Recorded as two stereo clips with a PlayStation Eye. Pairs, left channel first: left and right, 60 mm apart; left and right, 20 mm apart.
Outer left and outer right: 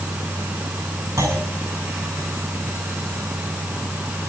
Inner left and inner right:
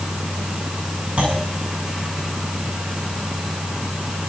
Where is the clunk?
65° right (ahead or behind), 7.5 m.